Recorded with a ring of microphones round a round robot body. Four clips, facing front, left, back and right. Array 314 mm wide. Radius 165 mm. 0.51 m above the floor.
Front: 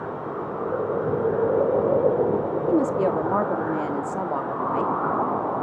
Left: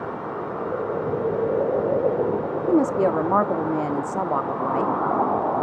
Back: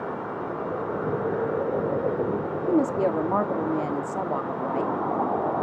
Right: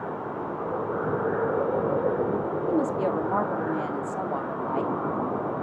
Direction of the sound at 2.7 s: 90° left.